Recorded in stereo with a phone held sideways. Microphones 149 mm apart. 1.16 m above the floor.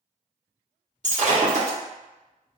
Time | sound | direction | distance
1.0 | breaking glass | 55° right (ahead or behind) | 1.0 m